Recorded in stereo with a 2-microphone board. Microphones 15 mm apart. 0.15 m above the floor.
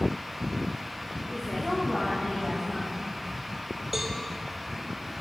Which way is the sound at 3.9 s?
15° right (ahead or behind).